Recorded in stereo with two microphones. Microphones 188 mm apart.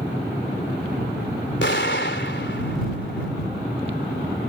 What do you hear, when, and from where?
1.6 s an explosion: 75° left (ahead or behind)